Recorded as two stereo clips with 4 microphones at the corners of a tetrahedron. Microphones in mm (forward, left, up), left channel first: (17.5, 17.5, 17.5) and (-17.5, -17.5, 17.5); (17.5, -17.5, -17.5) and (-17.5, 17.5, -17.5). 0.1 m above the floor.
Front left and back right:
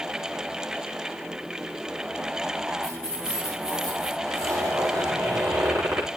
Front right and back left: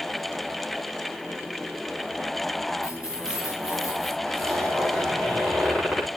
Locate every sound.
2.8 s keys jangling: 30° right, 7 m
4.2 s a zipper: 130° right, 7.5 m